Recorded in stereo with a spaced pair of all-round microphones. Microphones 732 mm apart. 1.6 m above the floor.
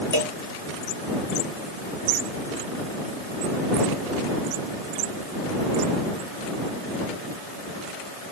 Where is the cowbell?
35° right (ahead or behind).